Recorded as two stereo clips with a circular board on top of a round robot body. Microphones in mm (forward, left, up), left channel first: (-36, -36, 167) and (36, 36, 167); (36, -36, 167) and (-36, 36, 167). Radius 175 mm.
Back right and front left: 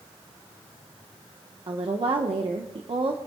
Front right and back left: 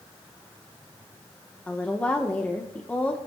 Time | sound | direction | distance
1.7 | a woman speaking | 25° left | 1.1 m